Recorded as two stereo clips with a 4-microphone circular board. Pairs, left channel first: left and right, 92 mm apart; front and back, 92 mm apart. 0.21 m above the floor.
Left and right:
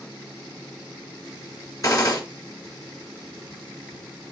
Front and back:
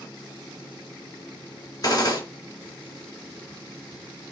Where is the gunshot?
45° left, 3 m.